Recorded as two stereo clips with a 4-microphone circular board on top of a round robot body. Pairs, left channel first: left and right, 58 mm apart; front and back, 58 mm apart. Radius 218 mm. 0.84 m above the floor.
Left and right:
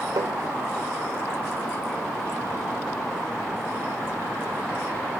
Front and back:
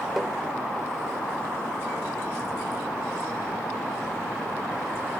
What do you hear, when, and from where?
0.2 s tapping: 95° right, 0.9 m